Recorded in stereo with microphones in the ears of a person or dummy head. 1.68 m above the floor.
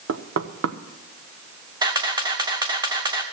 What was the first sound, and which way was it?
Knocking, 65° right (ahead or behind).